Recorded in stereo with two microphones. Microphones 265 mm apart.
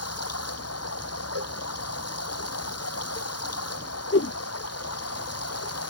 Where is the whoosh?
55° left (ahead or behind).